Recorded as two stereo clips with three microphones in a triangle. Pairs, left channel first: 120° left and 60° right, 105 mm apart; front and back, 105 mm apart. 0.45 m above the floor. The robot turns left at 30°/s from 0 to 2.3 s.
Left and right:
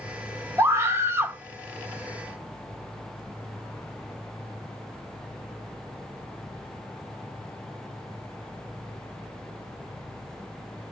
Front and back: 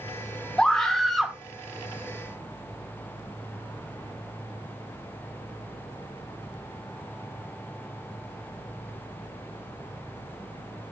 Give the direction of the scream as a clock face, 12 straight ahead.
2 o'clock.